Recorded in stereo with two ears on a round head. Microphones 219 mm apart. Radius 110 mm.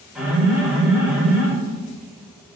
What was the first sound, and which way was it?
An alarm, 5° right (ahead or behind).